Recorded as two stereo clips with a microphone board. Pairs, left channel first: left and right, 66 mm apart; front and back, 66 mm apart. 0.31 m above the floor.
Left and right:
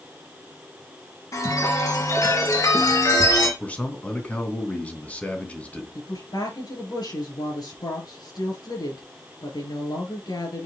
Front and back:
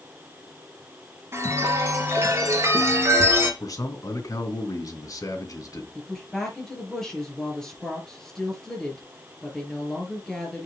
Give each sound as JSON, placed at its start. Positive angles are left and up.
{"t": 1.3, "sound": "a chime", "azimuth_deg": 130, "distance_m": 3.0}
{"t": 3.6, "sound": "a man speaking", "azimuth_deg": 25, "distance_m": 2.5}
{"t": 6.0, "sound": "a woman speaking", "azimuth_deg": 80, "distance_m": 5.0}